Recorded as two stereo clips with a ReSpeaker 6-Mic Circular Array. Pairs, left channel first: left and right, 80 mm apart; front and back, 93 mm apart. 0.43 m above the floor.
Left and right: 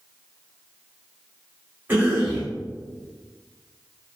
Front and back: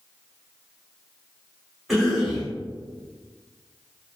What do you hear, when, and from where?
1.9 s a cough: 95° right, 1.3 m